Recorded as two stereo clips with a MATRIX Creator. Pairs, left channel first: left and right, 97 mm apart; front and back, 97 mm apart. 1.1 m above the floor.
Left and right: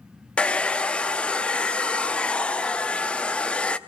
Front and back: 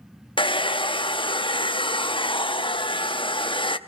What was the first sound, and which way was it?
A hair dryer, 10° left.